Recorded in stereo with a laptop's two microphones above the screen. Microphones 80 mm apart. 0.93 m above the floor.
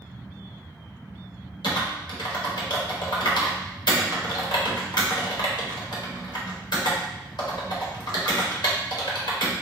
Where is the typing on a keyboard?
70° left (ahead or behind), 0.8 m.